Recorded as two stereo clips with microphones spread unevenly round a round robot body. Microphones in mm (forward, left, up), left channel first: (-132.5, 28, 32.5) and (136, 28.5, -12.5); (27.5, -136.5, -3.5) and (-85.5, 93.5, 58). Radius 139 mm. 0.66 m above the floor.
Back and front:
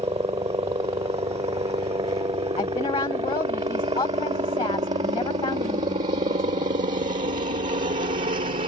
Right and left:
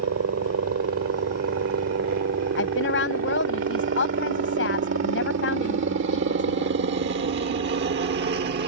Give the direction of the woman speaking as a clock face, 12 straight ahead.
4 o'clock.